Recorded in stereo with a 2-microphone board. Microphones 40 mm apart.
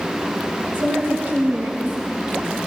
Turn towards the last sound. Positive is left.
turn(degrees=-55)  # may be behind; listen again after turning